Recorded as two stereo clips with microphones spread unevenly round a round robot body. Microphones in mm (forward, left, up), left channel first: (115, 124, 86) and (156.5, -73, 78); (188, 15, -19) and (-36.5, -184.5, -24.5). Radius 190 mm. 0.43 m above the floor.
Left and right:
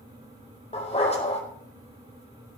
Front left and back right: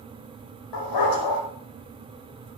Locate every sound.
0.7 s a dog barking: 45° left, 4.5 m